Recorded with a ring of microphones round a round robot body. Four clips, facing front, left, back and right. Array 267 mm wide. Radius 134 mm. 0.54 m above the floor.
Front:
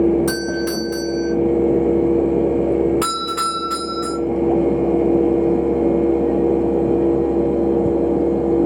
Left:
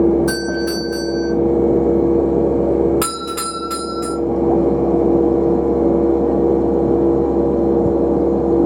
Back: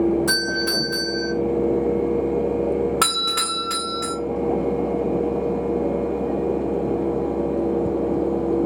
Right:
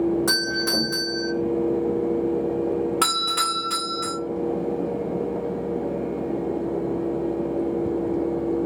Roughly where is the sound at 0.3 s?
Ahead right.